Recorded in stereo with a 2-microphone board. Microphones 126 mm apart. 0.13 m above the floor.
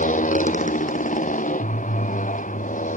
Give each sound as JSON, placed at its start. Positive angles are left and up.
{"t": 0.0, "sound": "a motorcycle", "side_deg": 80}